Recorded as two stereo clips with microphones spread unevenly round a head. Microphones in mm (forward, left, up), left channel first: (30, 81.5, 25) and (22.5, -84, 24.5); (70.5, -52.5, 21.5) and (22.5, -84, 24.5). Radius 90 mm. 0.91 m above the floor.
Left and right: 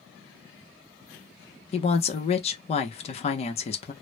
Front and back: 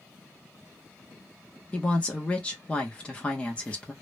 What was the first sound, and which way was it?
A woman speaking, 80° left.